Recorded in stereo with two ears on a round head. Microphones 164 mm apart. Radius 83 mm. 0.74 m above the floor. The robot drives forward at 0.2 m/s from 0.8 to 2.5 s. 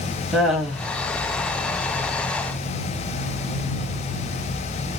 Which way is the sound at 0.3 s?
Centre (ahead or behind).